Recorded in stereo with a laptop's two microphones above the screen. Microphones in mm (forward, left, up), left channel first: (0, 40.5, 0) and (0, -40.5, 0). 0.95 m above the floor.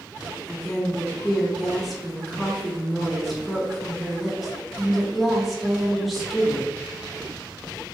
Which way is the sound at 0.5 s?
Centre (ahead or behind).